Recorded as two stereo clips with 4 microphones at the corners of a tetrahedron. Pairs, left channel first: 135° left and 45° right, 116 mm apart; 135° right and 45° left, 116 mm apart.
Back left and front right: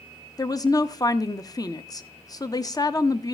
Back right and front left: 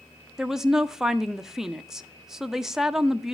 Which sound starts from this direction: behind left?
A woman speaking, at 0.4 s.